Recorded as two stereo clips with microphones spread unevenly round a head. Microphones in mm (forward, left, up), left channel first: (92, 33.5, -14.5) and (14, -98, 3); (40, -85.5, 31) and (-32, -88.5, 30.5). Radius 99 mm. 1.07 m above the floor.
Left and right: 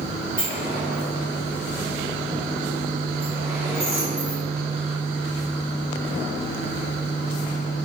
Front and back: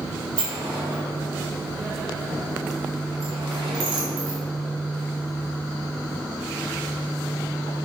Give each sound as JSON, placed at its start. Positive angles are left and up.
{"t": 0.4, "sound": "a sliding door", "azimuth_deg": 160, "distance_m": 1.4}